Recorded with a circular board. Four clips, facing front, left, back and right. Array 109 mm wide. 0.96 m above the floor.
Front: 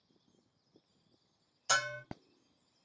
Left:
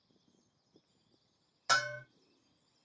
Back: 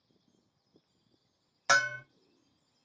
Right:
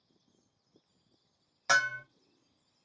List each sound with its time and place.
1.7 s a bell: 160° right, 0.7 m